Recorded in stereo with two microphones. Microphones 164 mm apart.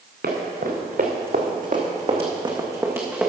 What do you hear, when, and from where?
0.2 s running footsteps: 80° right, 2.5 m; by 3.3 s 5° right (ahead or behind), 2.5 m